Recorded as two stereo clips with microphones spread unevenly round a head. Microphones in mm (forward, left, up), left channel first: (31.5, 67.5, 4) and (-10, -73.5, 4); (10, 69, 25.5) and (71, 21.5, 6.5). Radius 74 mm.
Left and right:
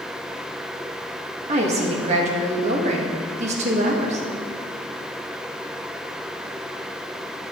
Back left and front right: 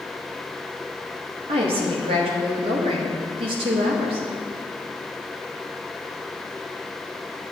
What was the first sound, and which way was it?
A woman speaking, 60° right.